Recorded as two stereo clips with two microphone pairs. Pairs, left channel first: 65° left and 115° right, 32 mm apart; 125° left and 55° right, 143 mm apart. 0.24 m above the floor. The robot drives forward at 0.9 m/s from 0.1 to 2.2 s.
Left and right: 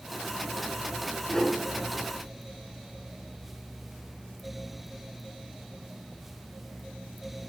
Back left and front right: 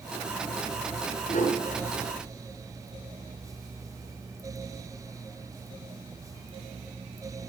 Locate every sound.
1.3 s a whoosh: 135° left, 3 m; by 1.6 s 140° left, 3 m